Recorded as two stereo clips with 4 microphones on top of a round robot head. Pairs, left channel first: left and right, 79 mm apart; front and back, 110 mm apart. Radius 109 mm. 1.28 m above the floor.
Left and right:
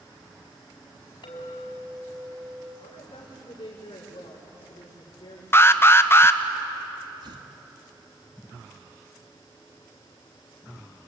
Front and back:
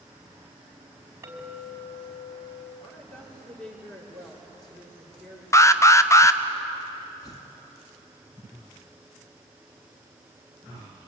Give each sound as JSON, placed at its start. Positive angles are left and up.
{"t": 1.2, "sound": "a clink", "azimuth_deg": 115, "distance_m": 5.0}
{"t": 2.8, "sound": "a woman speaking", "azimuth_deg": 80, "distance_m": 5.0}
{"t": 5.5, "sound": "an alarm", "azimuth_deg": 50, "distance_m": 1.3}
{"t": 7.2, "sound": "tearing paper", "azimuth_deg": -65, "distance_m": 2.0}